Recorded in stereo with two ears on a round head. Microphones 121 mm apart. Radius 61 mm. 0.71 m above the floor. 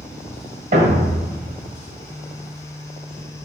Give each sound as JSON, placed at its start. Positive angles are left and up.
{"t": 0.7, "sound": "a thud", "side_deg": -60, "distance_m": 1.2}